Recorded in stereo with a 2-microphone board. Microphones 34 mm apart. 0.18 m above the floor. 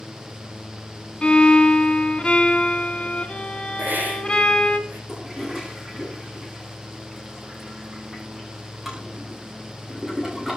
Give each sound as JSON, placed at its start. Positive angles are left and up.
{"t": 1.2, "sound": "a violin", "side_deg": 30, "distance_m": 2.0}
{"t": 3.8, "sound": "a hiss", "side_deg": -60, "distance_m": 5.0}
{"t": 5.1, "sound": "a toilet flushing", "side_deg": -5, "distance_m": 10.0}